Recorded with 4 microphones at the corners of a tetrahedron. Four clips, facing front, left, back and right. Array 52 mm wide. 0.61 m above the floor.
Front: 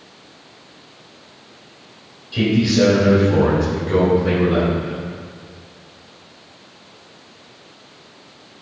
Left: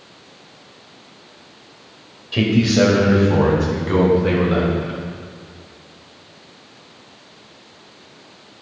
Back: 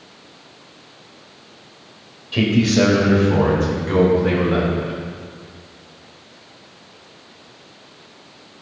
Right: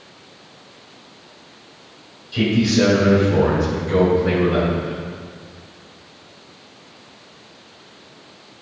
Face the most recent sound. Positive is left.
turn(degrees=105)